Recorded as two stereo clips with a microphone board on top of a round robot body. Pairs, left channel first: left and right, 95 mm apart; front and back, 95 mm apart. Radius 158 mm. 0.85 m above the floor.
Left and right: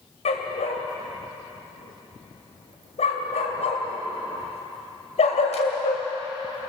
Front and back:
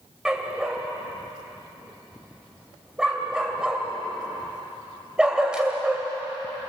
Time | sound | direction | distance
0.2 | a dog barking | 100° left | 2 m